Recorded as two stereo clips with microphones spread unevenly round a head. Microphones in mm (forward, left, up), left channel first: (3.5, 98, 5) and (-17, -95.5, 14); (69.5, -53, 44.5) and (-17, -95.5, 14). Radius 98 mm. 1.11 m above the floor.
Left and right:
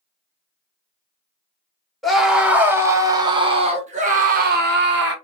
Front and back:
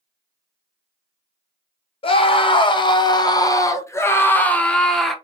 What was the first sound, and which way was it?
A scream, 5° right.